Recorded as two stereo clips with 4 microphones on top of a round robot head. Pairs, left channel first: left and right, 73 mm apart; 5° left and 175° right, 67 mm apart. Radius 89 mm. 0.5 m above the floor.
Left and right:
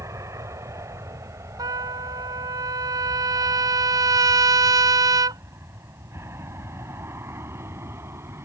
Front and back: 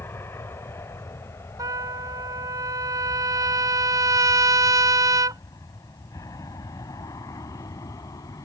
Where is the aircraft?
50° right; by 8.4 s 35° right.